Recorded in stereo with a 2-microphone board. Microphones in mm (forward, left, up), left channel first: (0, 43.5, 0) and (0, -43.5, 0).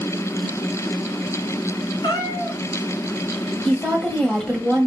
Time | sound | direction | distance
2.0 | a cat meowing | 55° left (ahead or behind) | 1.5 m
3.6 | a woman speaking | 10° left (ahead or behind) | 1.4 m